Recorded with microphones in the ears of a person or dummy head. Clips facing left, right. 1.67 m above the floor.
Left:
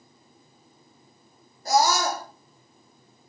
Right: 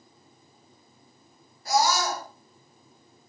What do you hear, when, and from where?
1.6 s a scream: 40° left (ahead or behind), 4 m